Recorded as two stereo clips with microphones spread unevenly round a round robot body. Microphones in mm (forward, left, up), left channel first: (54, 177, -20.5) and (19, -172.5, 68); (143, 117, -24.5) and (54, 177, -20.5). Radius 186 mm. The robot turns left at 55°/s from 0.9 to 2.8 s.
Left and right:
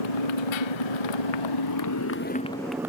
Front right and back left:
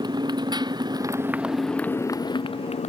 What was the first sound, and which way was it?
A motorcycle, 95° left.